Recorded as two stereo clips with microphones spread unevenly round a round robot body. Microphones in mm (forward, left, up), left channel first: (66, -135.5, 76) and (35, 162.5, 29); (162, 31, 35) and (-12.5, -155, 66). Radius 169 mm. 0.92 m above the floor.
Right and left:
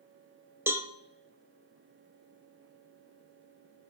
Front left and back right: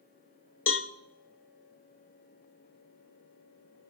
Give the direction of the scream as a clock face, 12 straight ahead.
No scream in this recording.